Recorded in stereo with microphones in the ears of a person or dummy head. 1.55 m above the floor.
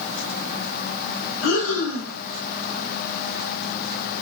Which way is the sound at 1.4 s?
80° left.